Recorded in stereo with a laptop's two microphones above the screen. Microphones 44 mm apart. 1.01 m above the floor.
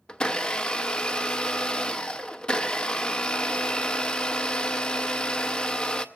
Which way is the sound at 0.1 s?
20° left (ahead or behind).